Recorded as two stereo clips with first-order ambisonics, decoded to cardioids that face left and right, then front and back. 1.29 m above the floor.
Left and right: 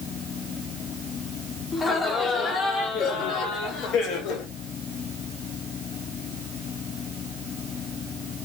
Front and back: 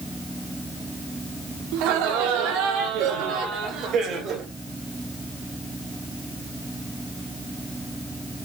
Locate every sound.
1.7 s laughter: 165° left, 3.5 m; by 4.5 s 120° left, 3.5 m